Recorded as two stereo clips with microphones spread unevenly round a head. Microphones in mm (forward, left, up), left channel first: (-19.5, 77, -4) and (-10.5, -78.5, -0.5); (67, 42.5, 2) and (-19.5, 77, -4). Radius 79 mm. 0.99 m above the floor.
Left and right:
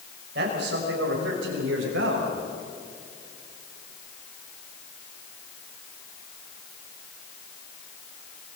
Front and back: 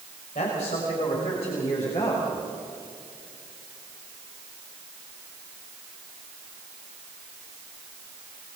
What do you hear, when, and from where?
0.3 s a man speaking: 60° right, 5.5 m; by 2.4 s 80° right, 6 m